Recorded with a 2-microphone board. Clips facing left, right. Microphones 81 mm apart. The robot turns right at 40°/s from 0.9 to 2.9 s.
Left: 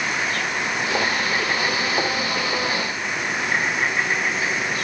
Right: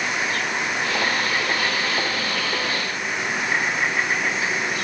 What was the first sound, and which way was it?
Only background noise.